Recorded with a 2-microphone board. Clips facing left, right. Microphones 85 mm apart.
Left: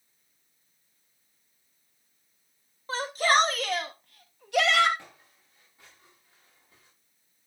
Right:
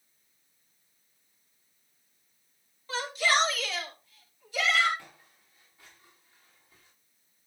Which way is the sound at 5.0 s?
20° left (ahead or behind).